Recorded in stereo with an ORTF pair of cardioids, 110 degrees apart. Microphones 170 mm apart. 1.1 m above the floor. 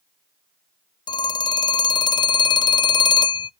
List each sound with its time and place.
1.1 s a phone ringing: 25° left, 0.6 m